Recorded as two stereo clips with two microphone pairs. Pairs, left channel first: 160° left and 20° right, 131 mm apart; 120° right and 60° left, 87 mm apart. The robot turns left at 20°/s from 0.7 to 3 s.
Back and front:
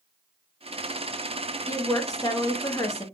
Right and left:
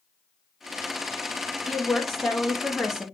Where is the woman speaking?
165° left, 0.7 m; by 3.0 s 140° left, 0.7 m.